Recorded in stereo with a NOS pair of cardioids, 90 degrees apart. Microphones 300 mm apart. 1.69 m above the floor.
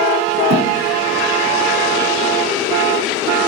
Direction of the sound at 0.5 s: 50° right.